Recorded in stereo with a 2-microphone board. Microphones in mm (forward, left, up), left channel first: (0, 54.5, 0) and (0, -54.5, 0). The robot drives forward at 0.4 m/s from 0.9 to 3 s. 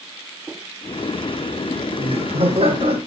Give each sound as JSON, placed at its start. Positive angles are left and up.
{"t": 1.7, "sound": "laughter", "side_deg": -60, "distance_m": 7.0}